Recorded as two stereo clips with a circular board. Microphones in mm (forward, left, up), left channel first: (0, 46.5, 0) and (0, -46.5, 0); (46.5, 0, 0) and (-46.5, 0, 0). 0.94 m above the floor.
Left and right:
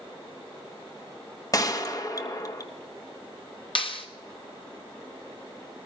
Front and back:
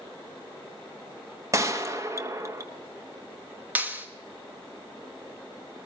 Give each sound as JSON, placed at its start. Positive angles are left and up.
{"t": 1.5, "sound": "a gunshot", "azimuth_deg": 135, "distance_m": 0.9}
{"t": 3.8, "sound": "a clap", "azimuth_deg": 110, "distance_m": 1.2}